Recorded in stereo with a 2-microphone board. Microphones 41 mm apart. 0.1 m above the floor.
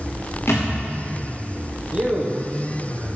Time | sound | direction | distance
0.5 | a thud | 85° left | 5 m
1.9 | a man speaking | 30° right (ahead or behind) | 4 m